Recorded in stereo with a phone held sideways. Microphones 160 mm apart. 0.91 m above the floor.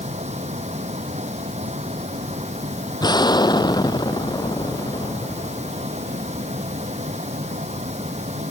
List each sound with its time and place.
0.0 s a fan: 45° right (ahead or behind)
3.0 s an explosion: 25° left (ahead or behind)